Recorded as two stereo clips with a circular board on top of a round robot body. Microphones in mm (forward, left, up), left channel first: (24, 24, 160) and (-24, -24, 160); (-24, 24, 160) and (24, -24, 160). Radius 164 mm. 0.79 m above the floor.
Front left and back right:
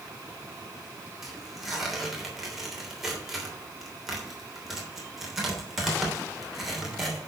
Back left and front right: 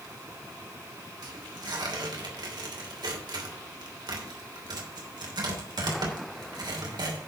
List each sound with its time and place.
1.2 s tearing paper: 50° right, 3 m